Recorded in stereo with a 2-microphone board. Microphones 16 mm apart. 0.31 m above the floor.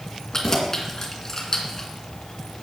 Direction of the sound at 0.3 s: 30° left (ahead or behind).